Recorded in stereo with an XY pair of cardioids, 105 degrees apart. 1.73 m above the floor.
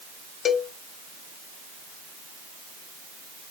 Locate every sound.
0.5 s a cowbell: 60° left, 0.6 m